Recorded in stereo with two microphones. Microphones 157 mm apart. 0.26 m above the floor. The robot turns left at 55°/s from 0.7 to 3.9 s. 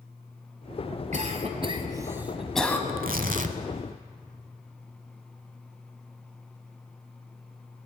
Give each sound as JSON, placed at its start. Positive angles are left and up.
{"t": 1.1, "sound": "a cough", "side_deg": -50, "distance_m": 1.6}
{"t": 2.9, "sound": "tearing paper", "azimuth_deg": -90, "distance_m": 0.8}